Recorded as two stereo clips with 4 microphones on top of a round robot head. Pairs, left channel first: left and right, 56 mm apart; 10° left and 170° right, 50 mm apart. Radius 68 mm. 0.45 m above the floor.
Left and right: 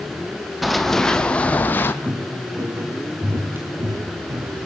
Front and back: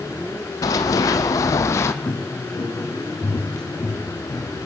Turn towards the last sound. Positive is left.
turn(degrees=-50)